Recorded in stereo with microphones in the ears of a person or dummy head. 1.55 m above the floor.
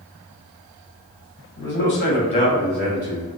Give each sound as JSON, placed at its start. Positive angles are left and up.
{"t": 1.6, "sound": "a man speaking", "side_deg": 55, "distance_m": 1.0}